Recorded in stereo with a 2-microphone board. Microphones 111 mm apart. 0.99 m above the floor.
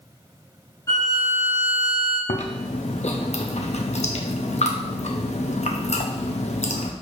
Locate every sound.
0.9 s a violin: 30° left (ahead or behind), 1.9 m
2.3 s chewing: 75° left (ahead or behind), 0.6 m